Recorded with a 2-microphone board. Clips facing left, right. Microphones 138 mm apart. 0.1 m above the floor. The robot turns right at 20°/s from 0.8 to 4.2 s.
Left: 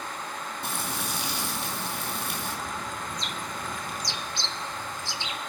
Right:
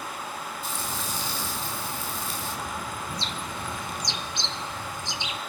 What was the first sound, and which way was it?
Frying, 75° left.